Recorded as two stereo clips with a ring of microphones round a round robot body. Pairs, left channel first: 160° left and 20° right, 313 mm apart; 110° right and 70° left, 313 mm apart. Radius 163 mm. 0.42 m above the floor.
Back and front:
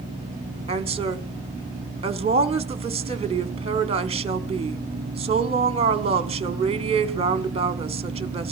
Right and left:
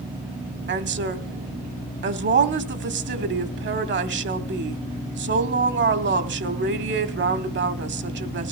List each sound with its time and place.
0.7 s a woman speaking: 40° left, 1.4 m